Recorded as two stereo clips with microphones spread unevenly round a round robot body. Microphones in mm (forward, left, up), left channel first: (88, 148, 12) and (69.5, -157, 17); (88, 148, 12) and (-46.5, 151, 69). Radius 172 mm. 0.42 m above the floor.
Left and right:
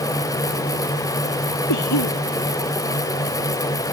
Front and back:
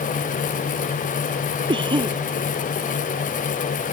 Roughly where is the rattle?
No rattle in this recording.